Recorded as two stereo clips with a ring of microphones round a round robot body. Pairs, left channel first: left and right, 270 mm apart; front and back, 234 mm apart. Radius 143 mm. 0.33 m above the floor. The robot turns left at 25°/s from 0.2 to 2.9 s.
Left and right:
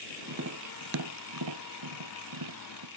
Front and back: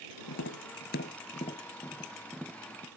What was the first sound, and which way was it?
Tapping, 40° right.